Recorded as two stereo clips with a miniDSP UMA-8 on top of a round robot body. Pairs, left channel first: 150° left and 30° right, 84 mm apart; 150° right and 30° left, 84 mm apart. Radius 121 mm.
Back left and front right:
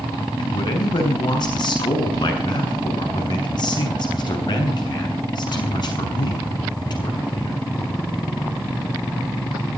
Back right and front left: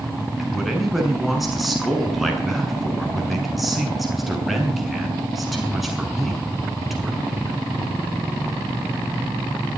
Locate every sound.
0.4 s a man speaking: 120° left, 7 m